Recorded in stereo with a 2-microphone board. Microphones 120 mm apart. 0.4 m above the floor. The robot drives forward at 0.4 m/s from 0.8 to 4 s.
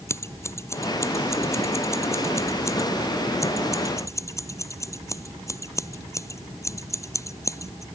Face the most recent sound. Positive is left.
turn(degrees=25)  # may be behind; listen again after turning